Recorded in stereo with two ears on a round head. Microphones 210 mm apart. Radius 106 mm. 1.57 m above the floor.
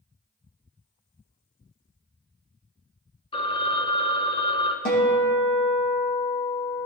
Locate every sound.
3.3 s a phone ringing: 20° left (ahead or behind), 0.7 m
4.8 s a guitar: 40° left (ahead or behind), 3 m